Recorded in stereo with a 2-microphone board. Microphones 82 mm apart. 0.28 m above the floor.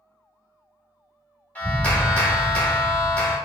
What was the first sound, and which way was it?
A clap, 20° left (ahead or behind).